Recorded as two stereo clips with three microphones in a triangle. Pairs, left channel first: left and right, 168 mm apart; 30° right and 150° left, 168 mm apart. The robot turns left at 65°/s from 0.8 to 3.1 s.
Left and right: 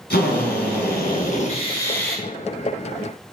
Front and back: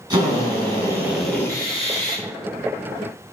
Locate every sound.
0.1 s a drill: 85° left, 4 m; by 2.2 s 5° right, 4 m